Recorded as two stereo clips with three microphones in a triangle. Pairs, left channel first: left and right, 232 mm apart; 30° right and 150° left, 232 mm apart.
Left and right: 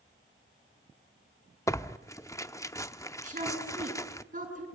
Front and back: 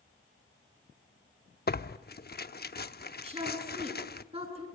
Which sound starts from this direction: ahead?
Tearing paper, at 1.7 s.